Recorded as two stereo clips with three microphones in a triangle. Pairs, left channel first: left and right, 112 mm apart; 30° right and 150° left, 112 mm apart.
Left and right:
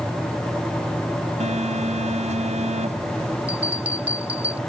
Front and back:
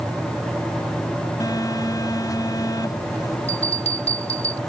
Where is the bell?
15° right.